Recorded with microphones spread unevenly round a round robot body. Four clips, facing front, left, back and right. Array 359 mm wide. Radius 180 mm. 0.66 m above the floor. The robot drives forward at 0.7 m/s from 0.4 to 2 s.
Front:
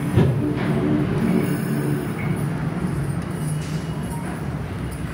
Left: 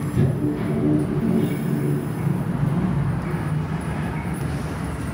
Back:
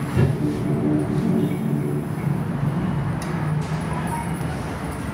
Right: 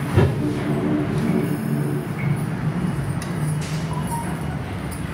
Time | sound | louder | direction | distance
0.1 | a whoosh | right 4 dB, front 2 dB | 40° right | 0.8 m